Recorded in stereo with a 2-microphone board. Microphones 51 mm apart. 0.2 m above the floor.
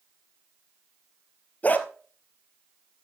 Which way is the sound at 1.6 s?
35° left (ahead or behind).